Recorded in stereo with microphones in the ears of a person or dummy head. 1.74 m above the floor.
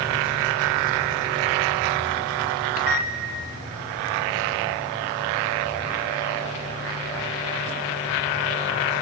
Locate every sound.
2.8 s a microwave: 50° left (ahead or behind), 2.5 m